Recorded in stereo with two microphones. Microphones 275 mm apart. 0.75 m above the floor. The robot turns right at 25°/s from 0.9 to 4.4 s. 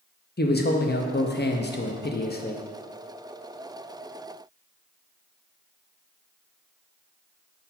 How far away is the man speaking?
About 0.6 m.